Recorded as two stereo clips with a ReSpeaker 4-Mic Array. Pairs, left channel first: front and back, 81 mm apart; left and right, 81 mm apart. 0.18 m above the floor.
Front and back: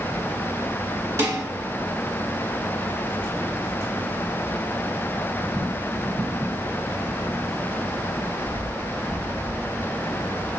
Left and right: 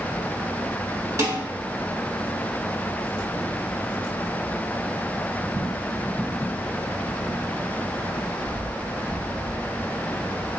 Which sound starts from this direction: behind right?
Dishes clattering, at 1.2 s.